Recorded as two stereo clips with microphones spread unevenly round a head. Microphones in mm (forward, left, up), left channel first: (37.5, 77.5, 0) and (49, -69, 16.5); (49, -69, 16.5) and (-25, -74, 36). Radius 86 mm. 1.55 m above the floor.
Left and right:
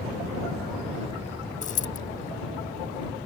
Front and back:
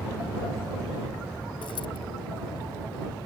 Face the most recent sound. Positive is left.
turn(degrees=55)